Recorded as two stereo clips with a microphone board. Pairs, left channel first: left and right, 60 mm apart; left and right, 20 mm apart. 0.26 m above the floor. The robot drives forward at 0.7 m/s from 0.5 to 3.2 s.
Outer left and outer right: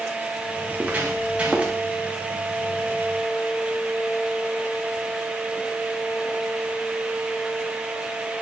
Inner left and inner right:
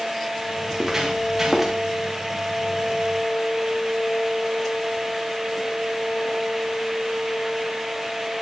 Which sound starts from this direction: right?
Footsteps, at 0.7 s.